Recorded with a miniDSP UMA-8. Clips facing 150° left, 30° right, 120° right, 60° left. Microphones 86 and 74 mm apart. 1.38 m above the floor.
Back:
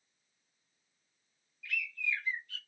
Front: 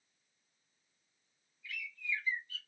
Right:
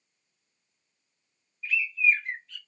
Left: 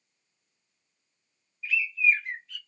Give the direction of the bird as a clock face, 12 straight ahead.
7 o'clock.